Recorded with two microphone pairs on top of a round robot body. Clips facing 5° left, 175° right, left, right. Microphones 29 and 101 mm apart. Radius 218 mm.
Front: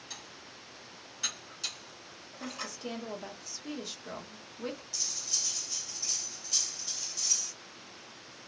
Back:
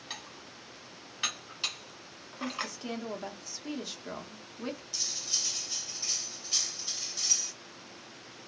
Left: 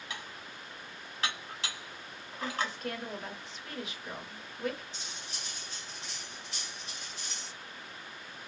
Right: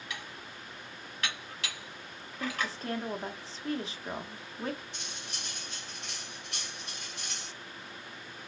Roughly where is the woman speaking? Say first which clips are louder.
Back 3 dB, even; behind right.